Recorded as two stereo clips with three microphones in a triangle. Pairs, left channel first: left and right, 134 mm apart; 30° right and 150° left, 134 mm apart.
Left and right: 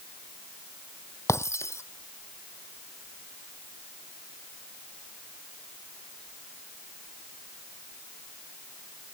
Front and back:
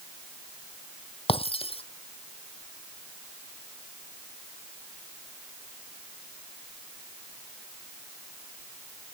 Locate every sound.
1.3 s breaking glass: 20° left